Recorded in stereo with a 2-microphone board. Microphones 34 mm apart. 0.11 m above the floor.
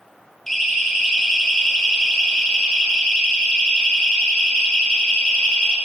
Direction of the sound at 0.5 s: 10° left (ahead or behind).